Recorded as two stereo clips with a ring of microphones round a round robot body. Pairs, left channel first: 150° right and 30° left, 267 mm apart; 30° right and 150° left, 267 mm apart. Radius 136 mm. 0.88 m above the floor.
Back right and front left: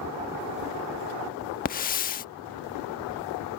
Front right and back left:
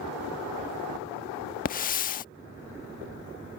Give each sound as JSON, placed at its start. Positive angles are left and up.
{"t": 1.6, "sound": "a hiss", "azimuth_deg": -90}